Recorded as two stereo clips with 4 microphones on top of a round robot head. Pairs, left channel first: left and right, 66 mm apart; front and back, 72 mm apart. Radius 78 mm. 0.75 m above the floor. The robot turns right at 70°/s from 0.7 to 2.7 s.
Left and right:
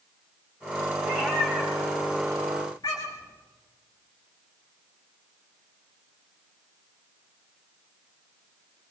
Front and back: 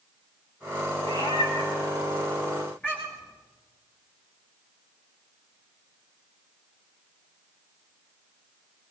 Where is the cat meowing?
50° right, 7.5 m; by 3.3 s 70° left, 7.5 m.